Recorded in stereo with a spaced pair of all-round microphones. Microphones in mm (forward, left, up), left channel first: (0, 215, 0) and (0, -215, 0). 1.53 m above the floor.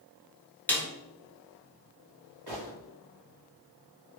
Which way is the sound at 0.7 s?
5° left (ahead or behind).